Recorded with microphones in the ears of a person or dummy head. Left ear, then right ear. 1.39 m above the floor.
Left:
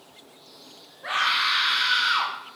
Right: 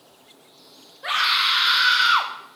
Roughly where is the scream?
Right.